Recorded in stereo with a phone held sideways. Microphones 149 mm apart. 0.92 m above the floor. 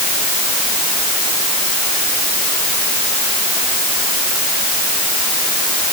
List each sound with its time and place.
Only background noise.